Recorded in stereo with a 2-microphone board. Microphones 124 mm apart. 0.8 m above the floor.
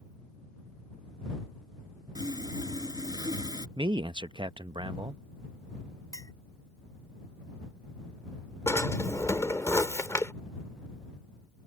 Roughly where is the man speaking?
Right.